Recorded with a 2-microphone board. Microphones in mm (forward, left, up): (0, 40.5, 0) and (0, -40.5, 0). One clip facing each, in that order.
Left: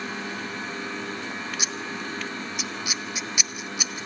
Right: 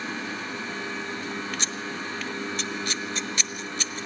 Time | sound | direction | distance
1.6 | scissors | 10° left (ahead or behind) | 1.0 m